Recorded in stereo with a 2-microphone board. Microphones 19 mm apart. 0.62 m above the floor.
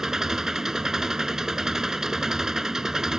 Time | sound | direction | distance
0.0 | an engine running | 30° right (ahead or behind) | ?